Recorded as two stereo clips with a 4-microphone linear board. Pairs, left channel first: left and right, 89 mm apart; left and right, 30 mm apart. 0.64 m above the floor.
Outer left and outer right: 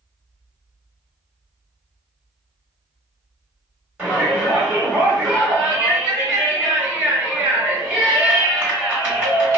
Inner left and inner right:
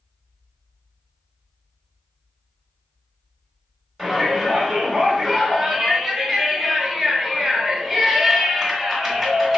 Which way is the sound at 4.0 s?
10° right (ahead or behind).